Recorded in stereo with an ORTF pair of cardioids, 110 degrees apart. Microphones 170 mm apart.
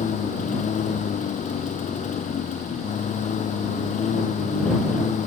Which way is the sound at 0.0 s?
45° left.